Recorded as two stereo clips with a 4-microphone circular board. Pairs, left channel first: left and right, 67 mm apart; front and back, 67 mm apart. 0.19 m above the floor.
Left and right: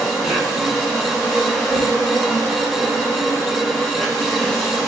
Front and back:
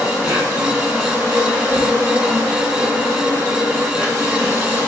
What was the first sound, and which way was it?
An insect, 165° right.